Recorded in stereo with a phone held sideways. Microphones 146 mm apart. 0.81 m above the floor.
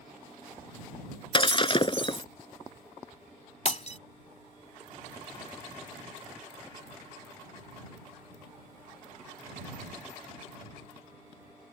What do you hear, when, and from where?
1.3 s breaking glass: 35° left (ahead or behind)
3.6 s breaking glass: 50° left (ahead or behind)